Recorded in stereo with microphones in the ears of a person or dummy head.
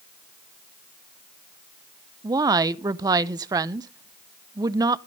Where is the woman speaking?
25° right (ahead or behind), 0.6 m.